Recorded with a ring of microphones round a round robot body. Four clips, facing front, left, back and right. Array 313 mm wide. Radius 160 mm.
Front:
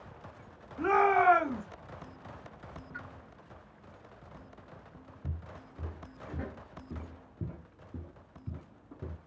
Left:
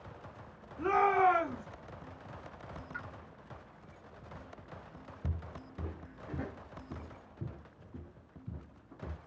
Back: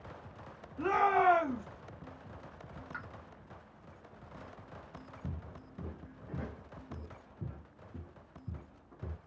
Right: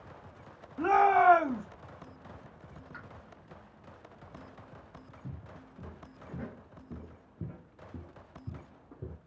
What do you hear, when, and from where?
0.8 s a shout: 75° right, 1.4 m
2.9 s a pop: 170° left, 1.0 m
5.2 s footsteps: 115° left, 1.1 m; by 9.2 s 45° right, 1.9 m